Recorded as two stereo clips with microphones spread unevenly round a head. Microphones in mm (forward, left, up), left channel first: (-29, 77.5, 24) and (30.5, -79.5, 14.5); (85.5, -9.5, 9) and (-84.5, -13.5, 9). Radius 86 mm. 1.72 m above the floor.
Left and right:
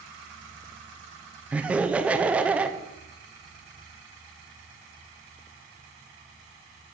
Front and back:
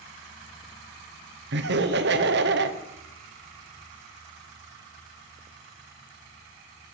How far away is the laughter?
About 1.1 m.